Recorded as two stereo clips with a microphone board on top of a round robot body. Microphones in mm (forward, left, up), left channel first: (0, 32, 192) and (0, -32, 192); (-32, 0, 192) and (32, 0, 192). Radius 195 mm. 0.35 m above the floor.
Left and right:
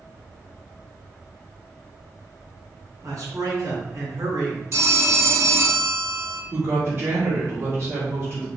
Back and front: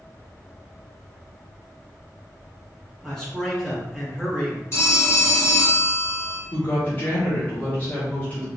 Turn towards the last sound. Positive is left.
turn(degrees=-125)